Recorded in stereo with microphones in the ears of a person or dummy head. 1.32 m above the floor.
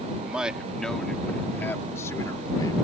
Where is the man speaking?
10° right (ahead or behind); by 2.7 s 20° left (ahead or behind).